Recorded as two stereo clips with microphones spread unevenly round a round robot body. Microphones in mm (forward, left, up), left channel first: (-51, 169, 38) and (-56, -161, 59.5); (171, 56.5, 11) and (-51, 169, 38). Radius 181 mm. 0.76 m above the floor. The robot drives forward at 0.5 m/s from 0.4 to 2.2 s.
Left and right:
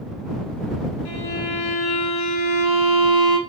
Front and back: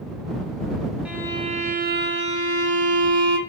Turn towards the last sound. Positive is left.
turn(degrees=105)